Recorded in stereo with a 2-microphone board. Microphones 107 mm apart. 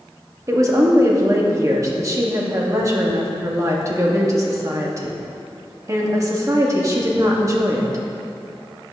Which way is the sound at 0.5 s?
35° right (ahead or behind).